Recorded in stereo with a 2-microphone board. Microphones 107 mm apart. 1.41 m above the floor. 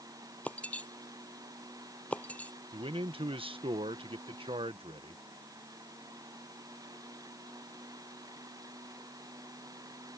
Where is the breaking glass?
15° left (ahead or behind).